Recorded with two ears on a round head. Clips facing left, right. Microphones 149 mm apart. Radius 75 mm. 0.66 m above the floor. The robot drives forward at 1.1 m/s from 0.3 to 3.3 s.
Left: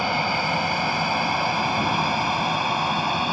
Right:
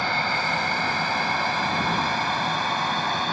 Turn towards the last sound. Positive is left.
turn(degrees=10)  # may be behind; listen again after turning